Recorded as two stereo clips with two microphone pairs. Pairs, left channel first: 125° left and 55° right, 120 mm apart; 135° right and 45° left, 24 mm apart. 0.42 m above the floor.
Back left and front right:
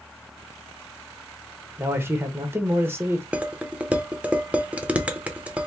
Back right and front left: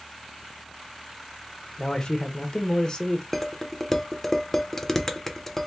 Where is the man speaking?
110° right, 1.0 m.